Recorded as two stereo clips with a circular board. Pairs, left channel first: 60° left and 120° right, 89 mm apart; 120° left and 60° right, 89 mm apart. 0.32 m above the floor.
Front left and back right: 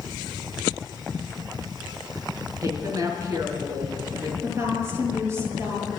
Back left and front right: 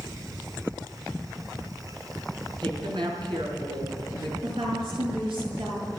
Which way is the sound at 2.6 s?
70° right.